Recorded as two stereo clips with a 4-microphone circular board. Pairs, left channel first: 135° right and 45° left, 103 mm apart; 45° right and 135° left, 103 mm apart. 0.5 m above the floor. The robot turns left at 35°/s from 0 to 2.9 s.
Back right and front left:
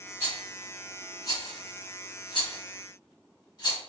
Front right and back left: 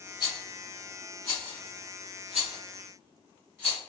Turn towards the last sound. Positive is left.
turn(degrees=-165)